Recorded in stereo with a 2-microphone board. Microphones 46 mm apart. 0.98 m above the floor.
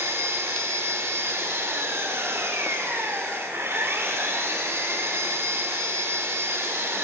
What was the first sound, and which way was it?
An engine running, 60° right (ahead or behind).